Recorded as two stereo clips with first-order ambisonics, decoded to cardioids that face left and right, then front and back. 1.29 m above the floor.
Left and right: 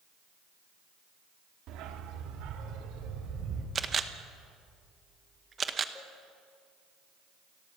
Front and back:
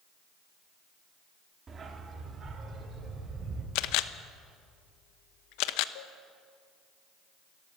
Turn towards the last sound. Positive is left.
turn(degrees=10)